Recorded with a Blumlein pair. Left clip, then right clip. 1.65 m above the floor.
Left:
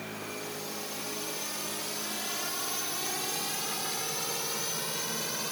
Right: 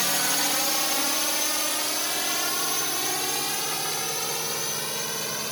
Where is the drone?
45° right; by 5.5 s 80° right.